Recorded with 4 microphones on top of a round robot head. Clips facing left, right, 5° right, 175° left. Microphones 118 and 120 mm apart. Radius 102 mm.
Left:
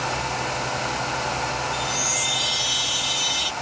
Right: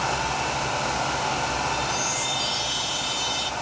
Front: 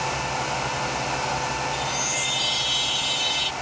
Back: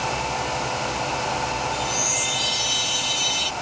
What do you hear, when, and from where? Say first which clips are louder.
1.7 s a chime: even, back 2 dB; 120° left